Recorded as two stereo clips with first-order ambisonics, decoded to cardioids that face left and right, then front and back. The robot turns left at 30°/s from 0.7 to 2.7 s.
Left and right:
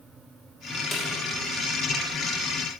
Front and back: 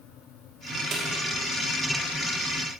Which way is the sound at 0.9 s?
140° left.